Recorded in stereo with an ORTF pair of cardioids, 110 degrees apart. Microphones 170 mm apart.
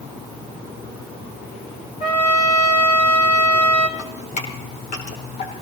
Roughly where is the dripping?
Ahead left.